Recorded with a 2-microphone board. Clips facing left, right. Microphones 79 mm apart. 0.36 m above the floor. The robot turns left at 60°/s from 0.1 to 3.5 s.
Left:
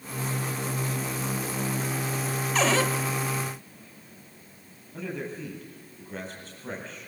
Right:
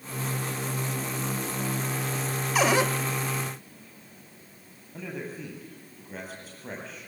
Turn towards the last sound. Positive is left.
turn(degrees=-5)  # may be behind; listen again after turning